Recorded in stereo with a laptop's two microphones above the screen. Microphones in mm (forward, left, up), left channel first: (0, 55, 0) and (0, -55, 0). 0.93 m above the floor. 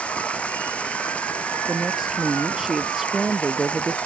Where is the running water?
10° left (ahead or behind).